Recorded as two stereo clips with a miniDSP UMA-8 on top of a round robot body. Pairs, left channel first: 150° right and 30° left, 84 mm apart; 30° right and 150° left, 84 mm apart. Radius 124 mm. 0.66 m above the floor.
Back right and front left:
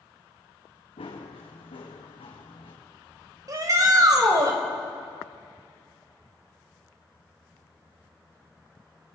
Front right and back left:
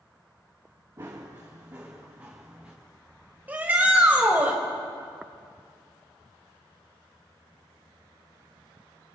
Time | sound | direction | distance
1.0 | running footsteps | 150° right | 3.5 m
3.5 | a shout | 80° left | 3.5 m